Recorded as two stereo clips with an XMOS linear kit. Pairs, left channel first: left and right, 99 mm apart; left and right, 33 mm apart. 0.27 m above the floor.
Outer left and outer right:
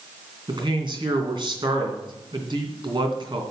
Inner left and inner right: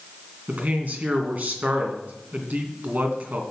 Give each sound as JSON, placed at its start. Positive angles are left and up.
{"t": 0.5, "sound": "a man speaking", "side_deg": -50, "distance_m": 2.5}